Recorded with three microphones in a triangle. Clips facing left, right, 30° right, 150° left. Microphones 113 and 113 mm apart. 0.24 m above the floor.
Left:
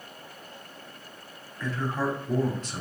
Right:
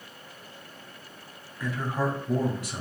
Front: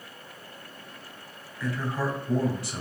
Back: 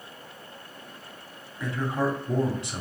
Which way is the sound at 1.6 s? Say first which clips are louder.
Even, back 2 dB; 160° right.